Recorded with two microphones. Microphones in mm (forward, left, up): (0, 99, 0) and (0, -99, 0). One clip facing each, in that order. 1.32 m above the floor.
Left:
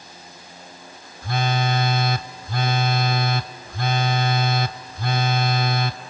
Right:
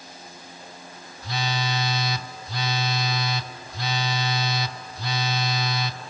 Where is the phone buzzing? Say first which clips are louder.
Left 5 dB; 55° left (ahead or behind), 0.6 m.